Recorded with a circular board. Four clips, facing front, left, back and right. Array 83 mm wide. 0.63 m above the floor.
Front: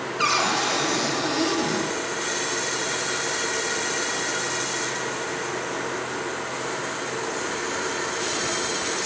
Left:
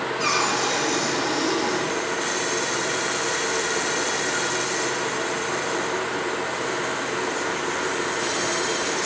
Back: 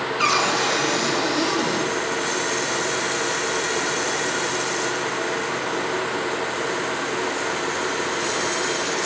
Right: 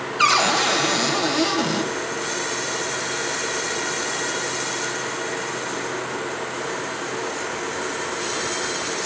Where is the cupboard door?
90° right, 3 m.